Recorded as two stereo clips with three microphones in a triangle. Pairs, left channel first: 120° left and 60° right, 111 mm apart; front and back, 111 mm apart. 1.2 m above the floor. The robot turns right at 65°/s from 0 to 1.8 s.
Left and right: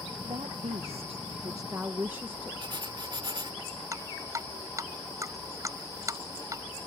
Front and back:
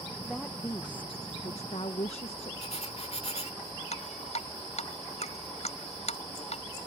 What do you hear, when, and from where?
0.2 s a woman speaking: 90° right; by 2.5 s 10° left
2.6 s writing: 15° right
3.9 s dripping: straight ahead